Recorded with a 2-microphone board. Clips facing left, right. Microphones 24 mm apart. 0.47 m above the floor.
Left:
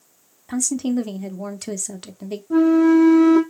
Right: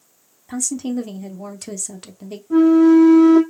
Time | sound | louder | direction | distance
0.5 | a woman speaking | left 2 dB | 15° left (ahead or behind) | 0.7 m
2.5 | a flute | right 3 dB | centre (ahead or behind) | 1.6 m